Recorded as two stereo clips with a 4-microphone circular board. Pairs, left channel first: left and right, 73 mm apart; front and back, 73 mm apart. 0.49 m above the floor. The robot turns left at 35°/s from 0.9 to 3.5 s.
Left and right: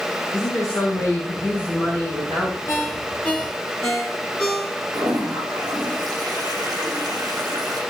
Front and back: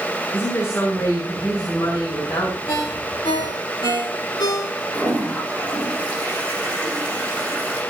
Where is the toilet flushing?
75° right, 7.5 m.